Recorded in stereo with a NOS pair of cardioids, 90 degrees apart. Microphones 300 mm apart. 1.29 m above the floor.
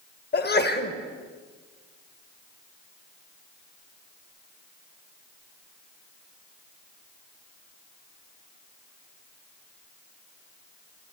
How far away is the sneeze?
About 1.5 m.